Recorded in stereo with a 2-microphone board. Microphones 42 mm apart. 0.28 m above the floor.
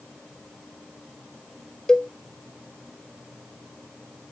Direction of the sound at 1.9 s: 20° left (ahead or behind).